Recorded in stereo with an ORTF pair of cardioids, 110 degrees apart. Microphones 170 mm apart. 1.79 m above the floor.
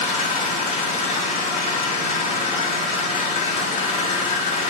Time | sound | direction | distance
0.0 | an engine running | 45° left | 1.1 m